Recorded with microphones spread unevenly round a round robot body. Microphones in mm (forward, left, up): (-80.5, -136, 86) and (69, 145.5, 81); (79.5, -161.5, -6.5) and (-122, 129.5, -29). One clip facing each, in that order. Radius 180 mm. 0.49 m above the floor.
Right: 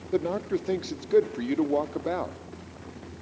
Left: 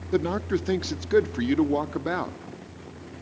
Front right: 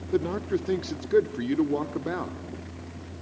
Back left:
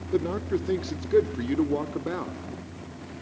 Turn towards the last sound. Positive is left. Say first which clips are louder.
# left 2 dB, even
turn(degrees=35)